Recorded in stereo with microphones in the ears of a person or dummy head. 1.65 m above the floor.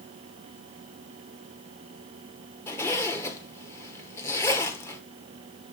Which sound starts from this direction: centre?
A zipper, at 2.7 s.